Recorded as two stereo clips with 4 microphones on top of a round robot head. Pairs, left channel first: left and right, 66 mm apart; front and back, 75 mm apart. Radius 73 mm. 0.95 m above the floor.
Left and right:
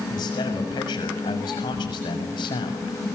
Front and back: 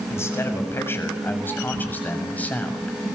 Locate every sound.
0.1 s a man speaking: 55° left, 7 m; by 3.1 s 75° left, 7 m